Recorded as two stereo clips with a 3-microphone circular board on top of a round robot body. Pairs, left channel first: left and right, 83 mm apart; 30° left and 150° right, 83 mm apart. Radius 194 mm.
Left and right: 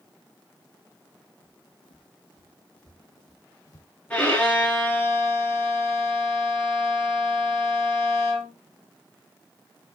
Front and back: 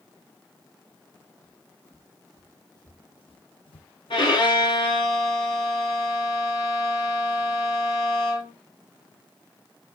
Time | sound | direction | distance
1.4 | footsteps | 105° left | 2 m
4.1 | a violin | 15° left | 5 m